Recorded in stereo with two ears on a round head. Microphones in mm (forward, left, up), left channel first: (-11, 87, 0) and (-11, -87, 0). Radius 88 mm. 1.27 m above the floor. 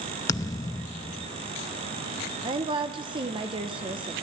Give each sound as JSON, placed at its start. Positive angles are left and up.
{"t": 0.3, "sound": "a thud", "side_deg": 20, "distance_m": 0.6}
{"t": 2.4, "sound": "a woman speaking", "side_deg": -25, "distance_m": 0.9}